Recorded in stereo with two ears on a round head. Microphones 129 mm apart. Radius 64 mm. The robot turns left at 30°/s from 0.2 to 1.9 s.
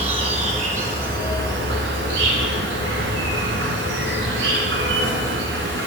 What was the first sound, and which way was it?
An insect, 40° right.